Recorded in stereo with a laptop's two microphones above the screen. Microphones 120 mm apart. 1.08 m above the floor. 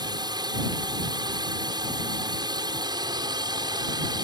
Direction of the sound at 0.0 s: 35° right (ahead or behind).